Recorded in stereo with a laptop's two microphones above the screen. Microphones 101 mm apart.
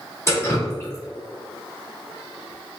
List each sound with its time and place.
0.3 s dripping: 25° left (ahead or behind), 1.1 m